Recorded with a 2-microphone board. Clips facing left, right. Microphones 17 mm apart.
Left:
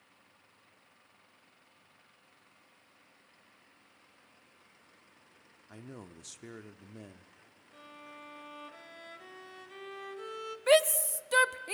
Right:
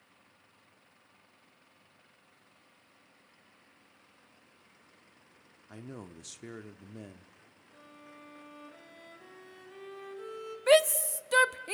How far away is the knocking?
No knocking in this recording.